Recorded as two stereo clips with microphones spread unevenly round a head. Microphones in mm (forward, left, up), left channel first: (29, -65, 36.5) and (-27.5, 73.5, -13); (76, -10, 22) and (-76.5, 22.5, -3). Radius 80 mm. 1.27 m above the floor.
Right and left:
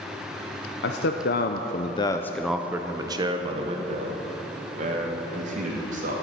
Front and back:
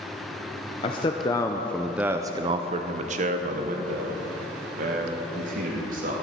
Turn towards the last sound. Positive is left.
turn(degrees=140)